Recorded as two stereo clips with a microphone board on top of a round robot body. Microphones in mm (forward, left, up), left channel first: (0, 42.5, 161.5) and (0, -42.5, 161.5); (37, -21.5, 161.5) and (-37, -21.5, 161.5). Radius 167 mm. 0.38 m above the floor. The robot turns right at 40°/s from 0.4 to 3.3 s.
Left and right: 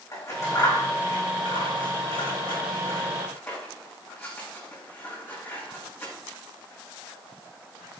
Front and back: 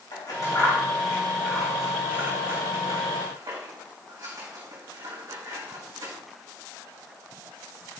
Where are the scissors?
35° left, 5 m; by 6.1 s 155° left, 5 m.